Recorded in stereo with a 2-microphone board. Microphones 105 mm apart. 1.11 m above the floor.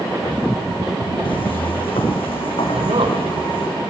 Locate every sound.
1.2 s footsteps: 65° left (ahead or behind), 3 m
2.7 s a man speaking: 85° right, 4 m